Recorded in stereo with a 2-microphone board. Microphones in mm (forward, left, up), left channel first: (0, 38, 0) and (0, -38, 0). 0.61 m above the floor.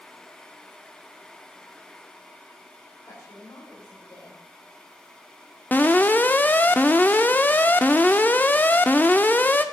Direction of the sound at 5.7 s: 25° left (ahead or behind).